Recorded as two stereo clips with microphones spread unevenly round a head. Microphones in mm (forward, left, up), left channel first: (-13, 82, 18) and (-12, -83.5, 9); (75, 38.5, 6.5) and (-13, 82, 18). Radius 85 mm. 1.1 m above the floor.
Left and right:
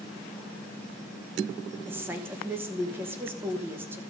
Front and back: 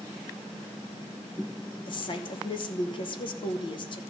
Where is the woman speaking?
15° right, 1.0 m.